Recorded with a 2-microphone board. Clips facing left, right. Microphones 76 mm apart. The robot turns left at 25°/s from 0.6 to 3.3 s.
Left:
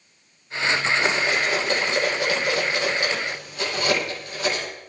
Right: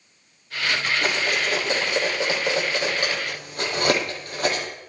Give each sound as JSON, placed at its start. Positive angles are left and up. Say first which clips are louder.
{"t": 1.0, "sound": "cutlery clinking", "louder": "left 2 dB", "side_deg": 10, "distance_m": 9.5}